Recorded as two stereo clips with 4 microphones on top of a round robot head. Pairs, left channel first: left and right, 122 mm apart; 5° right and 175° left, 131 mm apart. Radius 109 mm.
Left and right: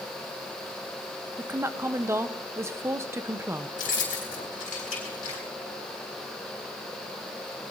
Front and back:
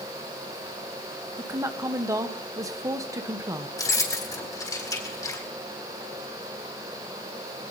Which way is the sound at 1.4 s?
140° right.